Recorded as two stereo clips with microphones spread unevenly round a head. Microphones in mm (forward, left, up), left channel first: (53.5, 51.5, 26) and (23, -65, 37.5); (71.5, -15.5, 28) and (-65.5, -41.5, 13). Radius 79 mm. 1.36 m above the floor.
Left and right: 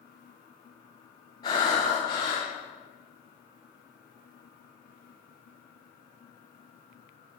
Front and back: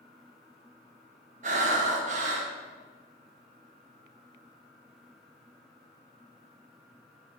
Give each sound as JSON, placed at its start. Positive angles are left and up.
{"t": 1.4, "sound": "breathing", "azimuth_deg": 140, "distance_m": 0.8}